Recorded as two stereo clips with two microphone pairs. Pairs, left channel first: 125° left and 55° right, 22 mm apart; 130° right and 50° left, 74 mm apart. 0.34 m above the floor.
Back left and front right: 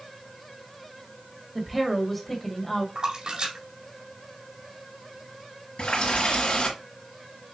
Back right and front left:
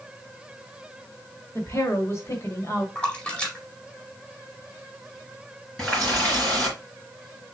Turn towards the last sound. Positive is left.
turn(degrees=150)